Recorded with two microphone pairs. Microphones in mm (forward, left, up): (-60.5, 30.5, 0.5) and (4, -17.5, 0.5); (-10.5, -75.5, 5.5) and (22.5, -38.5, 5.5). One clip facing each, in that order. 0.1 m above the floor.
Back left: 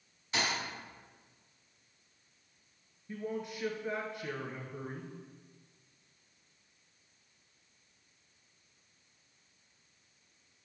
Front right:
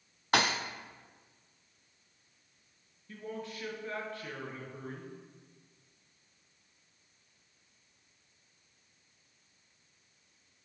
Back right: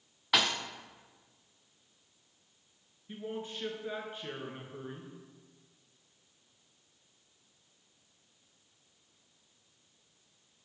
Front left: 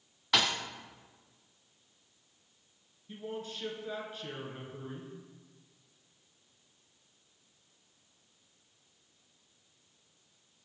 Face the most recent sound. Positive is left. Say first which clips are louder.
# back left 3 dB, back right 1 dB
turn(degrees=-165)